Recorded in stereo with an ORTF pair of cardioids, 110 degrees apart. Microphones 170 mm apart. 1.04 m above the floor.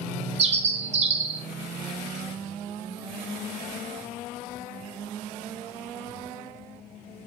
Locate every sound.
0.4 s a bird: 40° right, 0.5 m